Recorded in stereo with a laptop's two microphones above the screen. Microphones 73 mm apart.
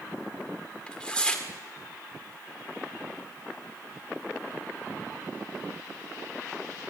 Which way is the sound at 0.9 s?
10° left (ahead or behind).